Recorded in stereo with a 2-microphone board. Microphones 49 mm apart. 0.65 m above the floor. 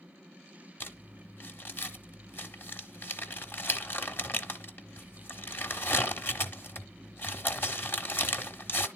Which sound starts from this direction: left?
Crumpling, at 0.8 s.